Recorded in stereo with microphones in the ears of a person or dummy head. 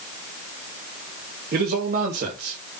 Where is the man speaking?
45° right (ahead or behind), 2.5 m.